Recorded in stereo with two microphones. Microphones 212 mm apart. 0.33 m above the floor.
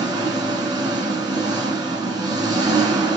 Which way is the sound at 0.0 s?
20° right (ahead or behind).